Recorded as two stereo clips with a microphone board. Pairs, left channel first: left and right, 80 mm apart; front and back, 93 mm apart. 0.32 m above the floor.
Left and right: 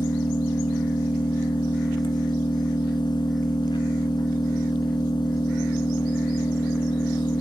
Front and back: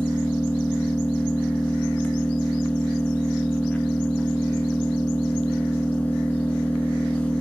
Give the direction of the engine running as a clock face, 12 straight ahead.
9 o'clock.